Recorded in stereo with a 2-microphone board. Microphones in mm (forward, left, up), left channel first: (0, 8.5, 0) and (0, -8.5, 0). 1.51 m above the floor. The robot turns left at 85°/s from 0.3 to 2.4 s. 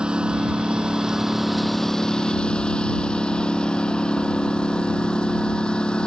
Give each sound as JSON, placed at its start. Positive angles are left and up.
{"t": 0.0, "sound": "a lawn mower", "azimuth_deg": -70}